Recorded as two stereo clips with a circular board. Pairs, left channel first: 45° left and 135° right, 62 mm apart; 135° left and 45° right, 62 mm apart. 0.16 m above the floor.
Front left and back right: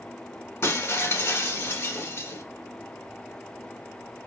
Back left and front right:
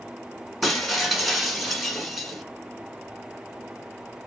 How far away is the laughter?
I don't hear laughter.